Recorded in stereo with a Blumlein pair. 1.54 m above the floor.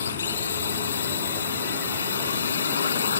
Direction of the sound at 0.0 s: 70° left.